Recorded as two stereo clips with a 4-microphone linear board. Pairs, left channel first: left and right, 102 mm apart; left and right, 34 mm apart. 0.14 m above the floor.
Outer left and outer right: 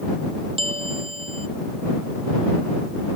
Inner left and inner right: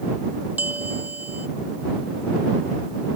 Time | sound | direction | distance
0.6 | a bell | 60° right (ahead or behind) | ?